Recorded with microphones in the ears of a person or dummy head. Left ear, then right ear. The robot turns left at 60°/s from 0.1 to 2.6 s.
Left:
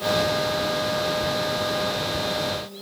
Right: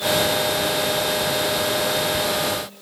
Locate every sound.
Only background noise.